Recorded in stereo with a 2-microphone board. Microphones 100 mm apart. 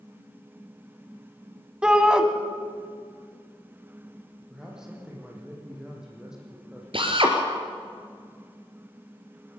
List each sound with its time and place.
1.8 s a shout: 10° right (ahead or behind), 1.0 m
4.5 s a man speaking: 5° right (ahead or behind), 7 m
6.9 s a drill: 65° right (ahead or behind), 2.5 m